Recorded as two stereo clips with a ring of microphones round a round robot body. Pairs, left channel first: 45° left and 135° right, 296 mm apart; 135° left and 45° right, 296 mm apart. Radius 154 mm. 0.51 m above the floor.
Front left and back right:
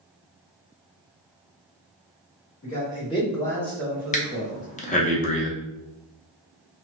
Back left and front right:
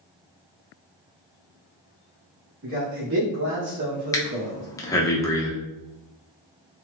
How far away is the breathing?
About 0.5 m.